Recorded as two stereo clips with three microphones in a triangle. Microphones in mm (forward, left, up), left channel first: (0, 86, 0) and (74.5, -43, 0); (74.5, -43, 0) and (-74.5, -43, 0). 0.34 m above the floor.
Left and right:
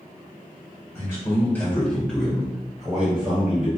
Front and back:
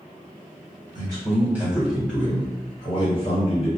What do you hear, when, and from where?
0.9 s a man speaking: 165° left, 1.2 m; by 3.7 s 15° left, 1.6 m